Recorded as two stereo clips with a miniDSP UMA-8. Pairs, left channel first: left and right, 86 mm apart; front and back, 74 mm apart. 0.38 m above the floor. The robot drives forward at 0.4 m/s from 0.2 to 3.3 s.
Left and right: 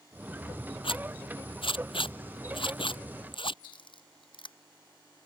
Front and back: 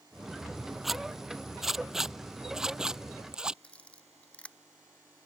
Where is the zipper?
90° left; by 3.5 s 100° left.